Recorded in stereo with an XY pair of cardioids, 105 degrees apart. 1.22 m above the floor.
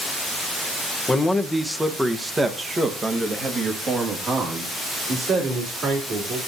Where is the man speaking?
20° left, 1.1 m; by 6.4 s 60° right, 3.5 m.